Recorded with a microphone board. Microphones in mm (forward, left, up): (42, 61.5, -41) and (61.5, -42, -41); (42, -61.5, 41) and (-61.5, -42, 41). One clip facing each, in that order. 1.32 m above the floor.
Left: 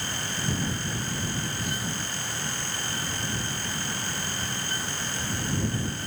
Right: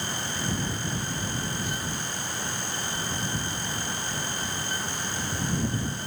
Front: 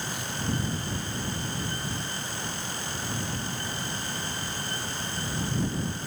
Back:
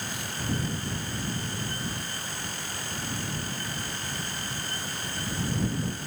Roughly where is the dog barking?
No dog barking in this recording.